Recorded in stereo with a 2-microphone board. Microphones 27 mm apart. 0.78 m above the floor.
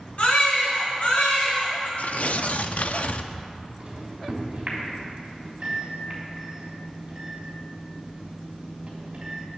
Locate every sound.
0.2 s a baby crying: 55° left (ahead or behind), 4 m
2.0 s tearing paper: 65° left (ahead or behind), 0.5 m
3.8 s a microwave: 35° right (ahead or behind), 3.5 m